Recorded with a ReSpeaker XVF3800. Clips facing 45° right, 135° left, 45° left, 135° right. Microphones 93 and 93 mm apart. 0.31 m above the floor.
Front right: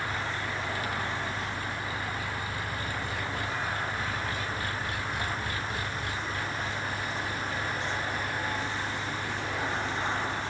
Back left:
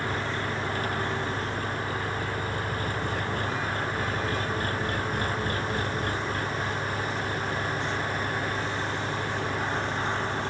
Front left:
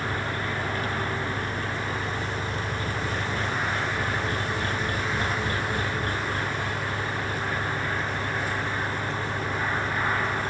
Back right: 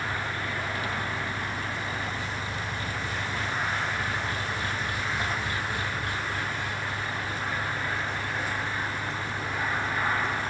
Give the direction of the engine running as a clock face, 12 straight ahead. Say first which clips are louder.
Back left 3 dB, front left 2 dB; 9 o'clock.